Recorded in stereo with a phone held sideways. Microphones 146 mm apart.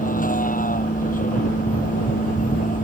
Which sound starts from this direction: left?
A vehicle, at 0.0 s.